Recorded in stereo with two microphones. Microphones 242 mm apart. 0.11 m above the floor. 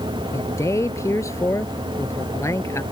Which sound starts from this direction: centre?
A man speaking, at 0.3 s.